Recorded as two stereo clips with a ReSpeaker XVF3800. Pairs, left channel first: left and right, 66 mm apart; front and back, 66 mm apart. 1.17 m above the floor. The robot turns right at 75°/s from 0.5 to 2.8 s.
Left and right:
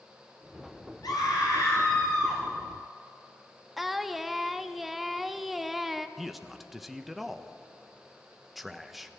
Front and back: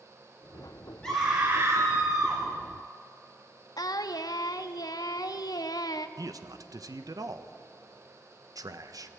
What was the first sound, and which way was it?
A scream, 80° left.